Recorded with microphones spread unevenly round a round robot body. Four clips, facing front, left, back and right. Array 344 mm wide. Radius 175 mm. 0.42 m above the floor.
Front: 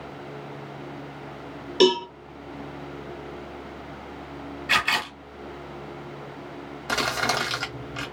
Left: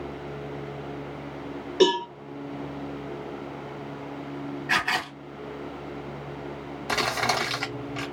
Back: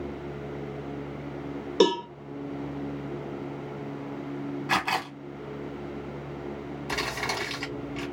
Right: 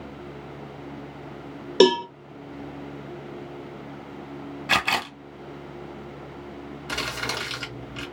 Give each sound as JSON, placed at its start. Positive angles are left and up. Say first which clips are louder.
{"t": 1.8, "sound": "a cowbell", "louder": "right 4 dB, front 3 dB", "azimuth_deg": -110, "distance_m": 0.5}
{"t": 4.7, "sound": "a camera shutter", "louder": "right 2 dB, front 2 dB", "azimuth_deg": -100, "distance_m": 0.7}
{"t": 6.9, "sound": "crumpling", "louder": "left 6 dB, front 7 dB", "azimuth_deg": 50, "distance_m": 1.9}